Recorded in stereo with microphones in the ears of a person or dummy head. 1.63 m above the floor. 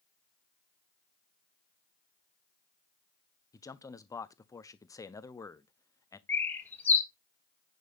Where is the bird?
15° left (ahead or behind), 1.7 m.